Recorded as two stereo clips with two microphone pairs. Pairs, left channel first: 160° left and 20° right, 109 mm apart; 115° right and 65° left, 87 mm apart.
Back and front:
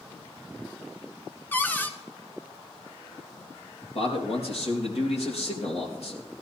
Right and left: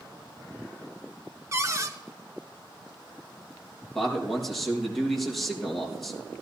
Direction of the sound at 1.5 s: 95° left.